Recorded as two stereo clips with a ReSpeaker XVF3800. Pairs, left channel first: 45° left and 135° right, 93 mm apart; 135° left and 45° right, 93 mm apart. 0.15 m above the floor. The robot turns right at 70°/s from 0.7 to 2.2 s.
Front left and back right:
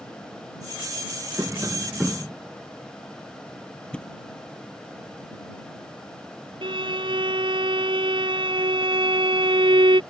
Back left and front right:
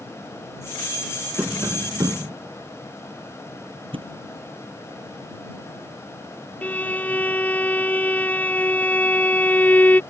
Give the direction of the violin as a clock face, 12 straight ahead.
5 o'clock.